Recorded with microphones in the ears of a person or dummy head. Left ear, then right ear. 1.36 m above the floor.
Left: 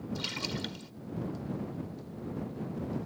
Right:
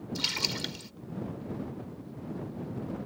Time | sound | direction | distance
0.1 | a splash | 20° right (ahead or behind) | ?